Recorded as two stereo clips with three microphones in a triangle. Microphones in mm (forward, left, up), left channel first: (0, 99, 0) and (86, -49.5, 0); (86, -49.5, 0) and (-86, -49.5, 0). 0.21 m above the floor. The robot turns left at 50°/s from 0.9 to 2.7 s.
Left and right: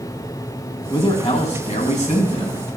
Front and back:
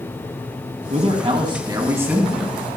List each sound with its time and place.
0.9 s a man speaking: 165° left, 1.7 m; by 2.7 s 80° left, 1.7 m